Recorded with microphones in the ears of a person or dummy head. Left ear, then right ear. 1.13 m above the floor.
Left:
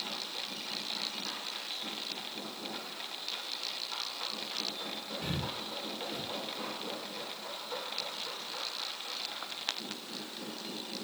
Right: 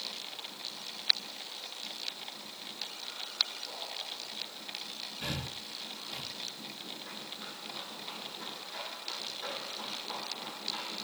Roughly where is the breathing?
Right.